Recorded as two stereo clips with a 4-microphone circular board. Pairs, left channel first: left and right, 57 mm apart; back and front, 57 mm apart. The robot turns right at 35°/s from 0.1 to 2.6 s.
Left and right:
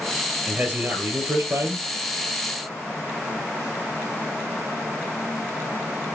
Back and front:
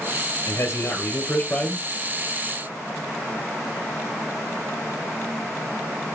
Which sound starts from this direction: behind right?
A man speaking, at 0.5 s.